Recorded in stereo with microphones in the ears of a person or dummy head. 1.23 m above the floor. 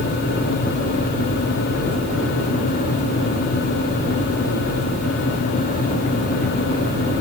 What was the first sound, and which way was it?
Only background noise.